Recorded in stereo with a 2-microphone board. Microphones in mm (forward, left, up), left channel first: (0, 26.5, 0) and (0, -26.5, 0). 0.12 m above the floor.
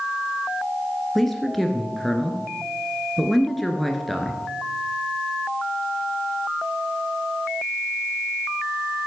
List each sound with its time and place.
1.1 s a man speaking: 5° left (ahead or behind), 2 m